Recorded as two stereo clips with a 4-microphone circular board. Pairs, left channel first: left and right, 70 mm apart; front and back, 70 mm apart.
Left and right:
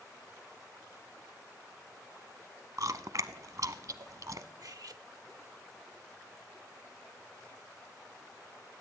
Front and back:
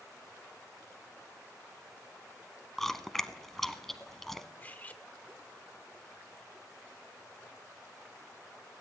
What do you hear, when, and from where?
2.8 s chewing: 85° right, 0.7 m
4.6 s cutlery clinking: 60° right, 0.9 m